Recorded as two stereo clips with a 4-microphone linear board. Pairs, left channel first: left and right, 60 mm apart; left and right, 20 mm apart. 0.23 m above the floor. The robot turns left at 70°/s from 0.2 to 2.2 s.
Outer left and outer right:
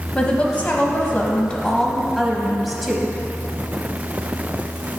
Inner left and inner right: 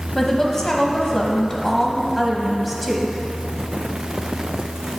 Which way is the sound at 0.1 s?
20° left (ahead or behind).